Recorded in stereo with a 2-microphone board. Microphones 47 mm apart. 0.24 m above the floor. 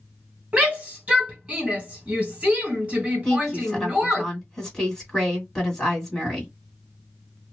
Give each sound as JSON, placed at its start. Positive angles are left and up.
{"t": 0.5, "sound": "a shout", "side_deg": -30, "distance_m": 1.7}
{"t": 3.2, "sound": "a woman speaking", "side_deg": 5, "distance_m": 2.0}